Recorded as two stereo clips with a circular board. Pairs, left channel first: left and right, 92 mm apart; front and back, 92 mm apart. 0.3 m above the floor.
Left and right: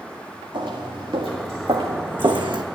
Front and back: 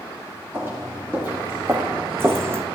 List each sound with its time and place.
0.5 s footsteps: 115° right, 2.5 m; by 2.6 s 120° right, 0.7 m